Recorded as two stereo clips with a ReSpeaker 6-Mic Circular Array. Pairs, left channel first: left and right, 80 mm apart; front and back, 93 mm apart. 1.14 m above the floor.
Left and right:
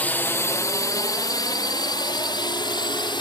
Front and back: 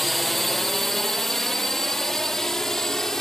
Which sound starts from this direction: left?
A drone, at 0.0 s.